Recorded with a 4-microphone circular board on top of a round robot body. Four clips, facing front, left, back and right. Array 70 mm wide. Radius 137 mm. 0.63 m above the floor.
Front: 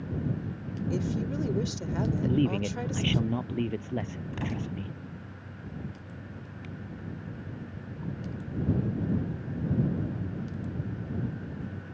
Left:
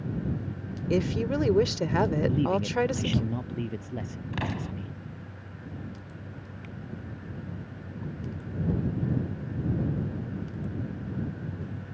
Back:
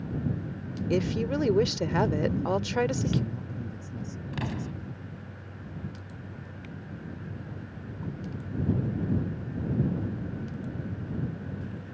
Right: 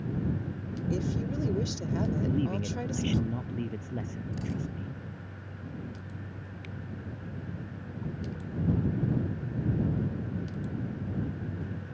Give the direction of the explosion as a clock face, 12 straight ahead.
9 o'clock.